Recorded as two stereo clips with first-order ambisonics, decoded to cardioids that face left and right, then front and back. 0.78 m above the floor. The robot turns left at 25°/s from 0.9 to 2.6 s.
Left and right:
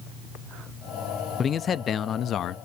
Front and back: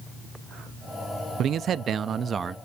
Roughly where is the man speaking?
Behind left.